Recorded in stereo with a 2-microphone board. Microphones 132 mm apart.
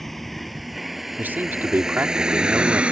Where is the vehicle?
Centre (ahead or behind); by 2.9 s 10° right (ahead or behind).